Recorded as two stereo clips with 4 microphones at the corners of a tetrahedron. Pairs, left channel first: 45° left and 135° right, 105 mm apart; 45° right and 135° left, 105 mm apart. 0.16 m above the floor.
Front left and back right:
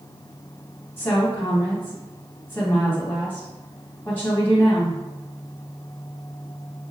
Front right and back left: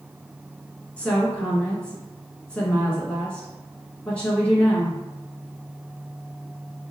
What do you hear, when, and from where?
1.0 s a woman speaking: 10° left, 1.1 m